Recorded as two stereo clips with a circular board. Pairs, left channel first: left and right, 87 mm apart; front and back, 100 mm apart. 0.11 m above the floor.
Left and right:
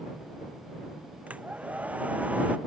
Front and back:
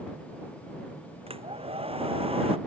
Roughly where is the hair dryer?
Behind.